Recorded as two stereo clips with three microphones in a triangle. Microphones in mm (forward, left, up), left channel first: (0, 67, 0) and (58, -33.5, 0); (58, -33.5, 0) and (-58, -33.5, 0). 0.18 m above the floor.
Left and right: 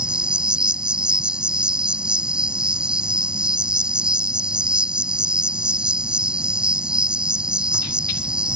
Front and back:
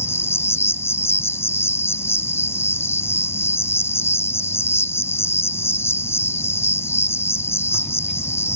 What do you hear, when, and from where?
0.0 s an insect: 5° left